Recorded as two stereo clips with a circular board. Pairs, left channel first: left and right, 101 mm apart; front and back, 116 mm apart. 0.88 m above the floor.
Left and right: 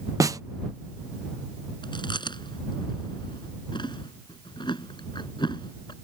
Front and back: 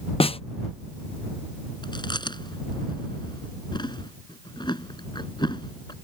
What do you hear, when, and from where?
0.2 s a snare drum: 35° right
1.8 s chewing: 50° left